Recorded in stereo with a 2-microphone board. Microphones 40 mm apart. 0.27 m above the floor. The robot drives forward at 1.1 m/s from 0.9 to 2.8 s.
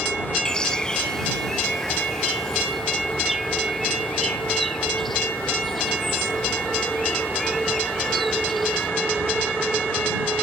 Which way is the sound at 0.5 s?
20° left (ahead or behind).